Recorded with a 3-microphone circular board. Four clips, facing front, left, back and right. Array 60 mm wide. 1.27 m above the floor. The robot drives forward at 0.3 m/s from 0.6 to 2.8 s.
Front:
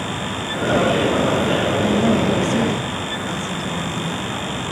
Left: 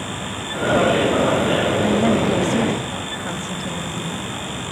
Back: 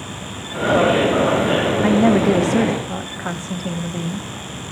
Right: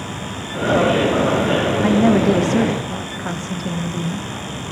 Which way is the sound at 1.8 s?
145° right.